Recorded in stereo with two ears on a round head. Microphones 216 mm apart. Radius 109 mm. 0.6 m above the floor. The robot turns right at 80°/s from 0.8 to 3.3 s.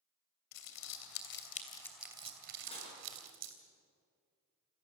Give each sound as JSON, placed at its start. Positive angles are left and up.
{"t": 0.5, "sound": "crumpling", "side_deg": 75, "distance_m": 3.0}
{"t": 2.7, "sound": "dishes clattering", "side_deg": 20, "distance_m": 6.0}